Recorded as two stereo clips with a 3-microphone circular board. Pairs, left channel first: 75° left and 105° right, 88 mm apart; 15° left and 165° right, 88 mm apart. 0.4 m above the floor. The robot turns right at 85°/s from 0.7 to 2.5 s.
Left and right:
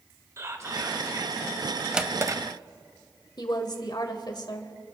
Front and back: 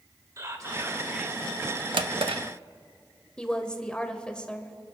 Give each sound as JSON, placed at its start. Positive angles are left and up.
{"t": 0.4, "sound": "whispering", "azimuth_deg": -140, "distance_m": 1.7}
{"t": 1.9, "sound": "a drawer", "azimuth_deg": 170, "distance_m": 0.6}
{"t": 3.4, "sound": "a woman speaking", "azimuth_deg": 95, "distance_m": 1.2}